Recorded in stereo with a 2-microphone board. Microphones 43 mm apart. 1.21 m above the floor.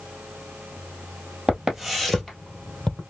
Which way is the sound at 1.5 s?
15° right (ahead or behind).